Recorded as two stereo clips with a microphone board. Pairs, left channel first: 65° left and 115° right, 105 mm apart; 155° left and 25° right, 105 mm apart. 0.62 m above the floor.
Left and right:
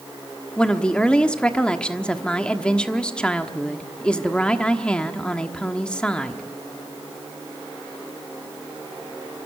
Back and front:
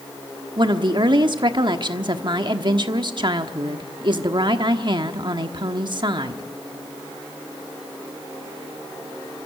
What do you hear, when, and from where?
0.6 s a woman speaking: 10° right, 1.2 m